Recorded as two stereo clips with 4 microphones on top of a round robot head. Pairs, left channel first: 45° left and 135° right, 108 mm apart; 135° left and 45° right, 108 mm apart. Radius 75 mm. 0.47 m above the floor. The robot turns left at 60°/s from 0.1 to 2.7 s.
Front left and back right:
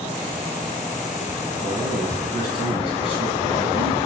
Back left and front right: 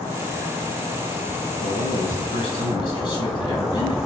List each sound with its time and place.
1.6 s a man speaking: 155° left, 4 m; by 4.0 s 90° left, 4 m